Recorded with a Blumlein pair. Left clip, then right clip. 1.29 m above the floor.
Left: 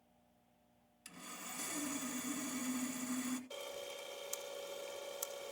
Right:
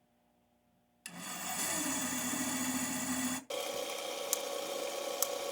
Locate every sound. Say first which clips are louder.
1.1 s sawing: right 8 dB; 30° right, 1.5 m
3.5 s a camera shutter: right 9 dB; 50° right, 0.9 m